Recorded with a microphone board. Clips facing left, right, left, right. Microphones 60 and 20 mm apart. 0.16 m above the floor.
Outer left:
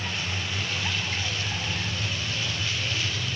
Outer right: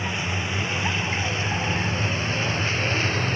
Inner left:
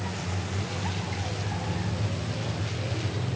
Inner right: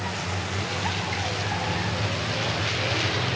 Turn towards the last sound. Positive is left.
turn(degrees=-45)  # may be behind; listen again after turning